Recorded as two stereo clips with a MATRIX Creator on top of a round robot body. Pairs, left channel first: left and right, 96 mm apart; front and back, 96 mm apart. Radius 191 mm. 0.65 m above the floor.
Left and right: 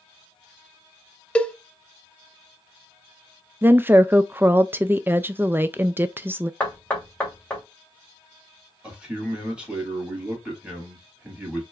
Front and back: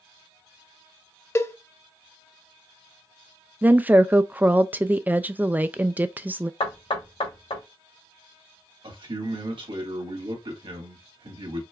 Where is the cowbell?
25° left, 0.9 m.